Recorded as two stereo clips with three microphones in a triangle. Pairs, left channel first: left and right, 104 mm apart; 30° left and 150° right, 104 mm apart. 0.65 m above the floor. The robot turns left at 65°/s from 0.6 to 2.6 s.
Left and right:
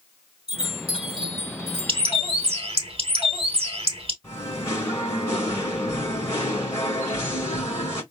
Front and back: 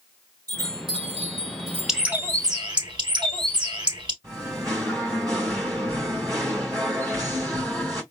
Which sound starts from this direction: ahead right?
A bird, at 1.9 s.